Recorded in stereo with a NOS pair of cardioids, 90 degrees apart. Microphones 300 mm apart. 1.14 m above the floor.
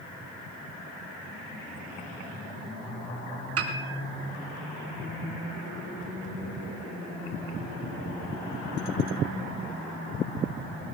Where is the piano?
50° right, 4 m.